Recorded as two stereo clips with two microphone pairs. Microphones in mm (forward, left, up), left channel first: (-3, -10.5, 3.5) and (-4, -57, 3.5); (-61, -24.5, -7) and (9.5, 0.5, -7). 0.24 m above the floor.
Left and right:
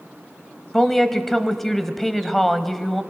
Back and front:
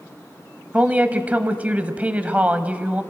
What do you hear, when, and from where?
0.7 s a woman speaking: 5° left, 0.9 m